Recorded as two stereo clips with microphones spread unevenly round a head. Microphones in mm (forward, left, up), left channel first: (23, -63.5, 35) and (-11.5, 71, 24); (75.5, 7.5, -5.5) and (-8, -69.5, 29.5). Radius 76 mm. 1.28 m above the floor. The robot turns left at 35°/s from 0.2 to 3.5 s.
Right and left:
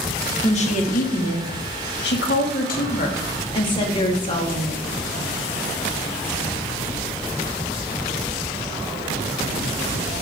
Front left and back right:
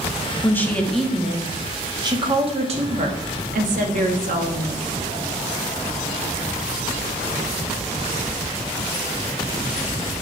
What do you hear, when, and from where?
0.4 s a woman speaking: 30° right, 2 m; by 4.9 s 135° right, 2 m